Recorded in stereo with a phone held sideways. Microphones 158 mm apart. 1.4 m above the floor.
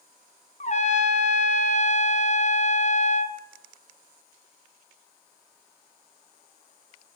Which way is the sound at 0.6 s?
50° left (ahead or behind).